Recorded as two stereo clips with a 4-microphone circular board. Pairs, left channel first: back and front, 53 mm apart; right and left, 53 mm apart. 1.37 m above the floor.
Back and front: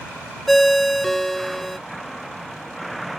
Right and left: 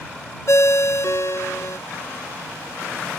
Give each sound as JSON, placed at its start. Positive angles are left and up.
{"t": 0.5, "sound": "a ringtone", "azimuth_deg": -95}